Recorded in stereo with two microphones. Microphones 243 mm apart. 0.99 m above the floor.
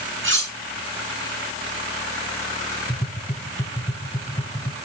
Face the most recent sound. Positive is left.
turn(degrees=20)  # may be behind; listen again after turning